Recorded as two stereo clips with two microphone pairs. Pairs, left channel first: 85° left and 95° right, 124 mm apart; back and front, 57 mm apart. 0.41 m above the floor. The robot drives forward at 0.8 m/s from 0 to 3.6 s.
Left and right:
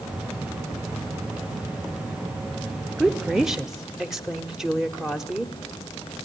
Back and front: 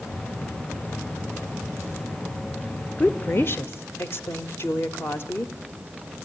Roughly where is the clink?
I don't hear a clink.